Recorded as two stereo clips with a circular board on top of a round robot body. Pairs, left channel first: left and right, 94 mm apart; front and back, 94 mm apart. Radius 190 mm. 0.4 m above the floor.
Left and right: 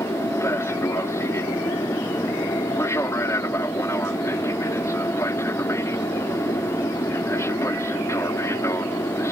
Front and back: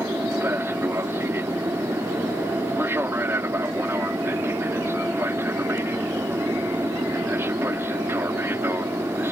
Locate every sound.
0.0 s an aircraft: 130° left